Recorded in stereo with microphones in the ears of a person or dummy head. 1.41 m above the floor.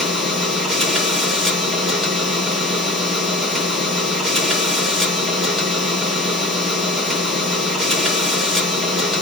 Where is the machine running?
Centre (ahead or behind), 1.5 m.